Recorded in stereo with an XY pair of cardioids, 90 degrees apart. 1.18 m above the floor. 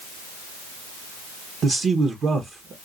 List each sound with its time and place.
1.6 s a man speaking: 60° right, 0.9 m